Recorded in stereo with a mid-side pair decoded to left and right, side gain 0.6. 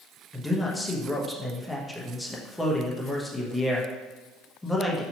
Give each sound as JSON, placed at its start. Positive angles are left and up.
{"t": 0.3, "sound": "a man speaking", "azimuth_deg": 10, "distance_m": 1.0}